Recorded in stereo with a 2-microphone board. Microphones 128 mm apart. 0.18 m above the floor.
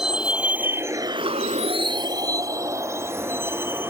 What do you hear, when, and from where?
0.0 s a vehicle: 5° right (ahead or behind); by 3.9 s 15° right (ahead or behind)